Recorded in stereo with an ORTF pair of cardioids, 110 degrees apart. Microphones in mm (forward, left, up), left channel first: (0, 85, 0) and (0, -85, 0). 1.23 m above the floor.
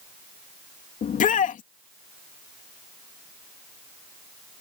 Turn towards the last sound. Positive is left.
turn(degrees=50)